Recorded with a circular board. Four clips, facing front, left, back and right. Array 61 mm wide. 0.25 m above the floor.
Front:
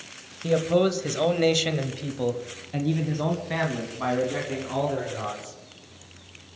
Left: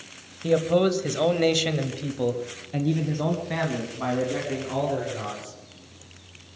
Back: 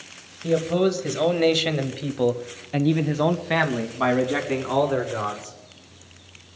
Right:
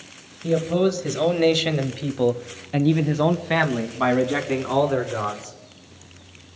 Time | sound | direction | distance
0.4 | a man speaking | 65° left | 1.1 m